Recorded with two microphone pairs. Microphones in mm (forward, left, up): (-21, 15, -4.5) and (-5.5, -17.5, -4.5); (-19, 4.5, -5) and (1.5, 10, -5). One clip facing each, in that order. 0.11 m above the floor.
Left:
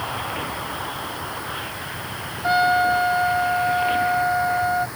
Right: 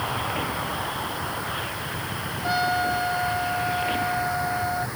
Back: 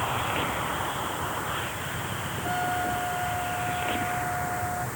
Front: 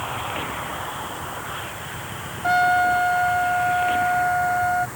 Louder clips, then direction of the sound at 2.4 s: Left 6 dB, front 11 dB; 50° left.